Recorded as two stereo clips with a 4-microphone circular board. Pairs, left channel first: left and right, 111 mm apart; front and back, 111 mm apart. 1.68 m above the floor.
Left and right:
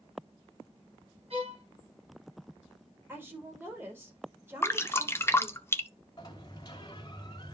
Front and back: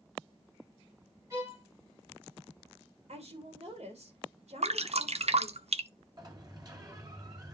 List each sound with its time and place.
1.3 s a violin: 120° right, 8.5 m
3.1 s a woman speaking: 160° right, 4 m
4.6 s dripping: 155° left, 0.8 m
6.2 s a sliding door: 130° left, 2.5 m